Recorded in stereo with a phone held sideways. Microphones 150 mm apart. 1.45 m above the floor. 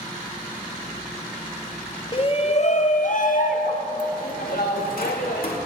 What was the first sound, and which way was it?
A shout, 35° left (ahead or behind).